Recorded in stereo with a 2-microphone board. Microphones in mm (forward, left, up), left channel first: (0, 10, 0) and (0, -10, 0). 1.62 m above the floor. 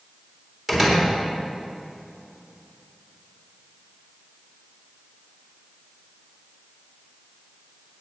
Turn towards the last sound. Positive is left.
turn(degrees=-10)  # may be behind; listen again after turning